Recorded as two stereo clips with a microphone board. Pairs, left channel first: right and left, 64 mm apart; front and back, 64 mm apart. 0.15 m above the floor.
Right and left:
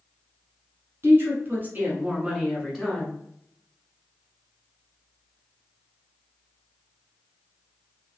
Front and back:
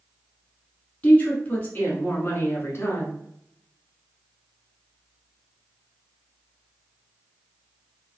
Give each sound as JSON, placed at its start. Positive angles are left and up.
{"t": 1.0, "sound": "a woman speaking", "azimuth_deg": 60, "distance_m": 1.6}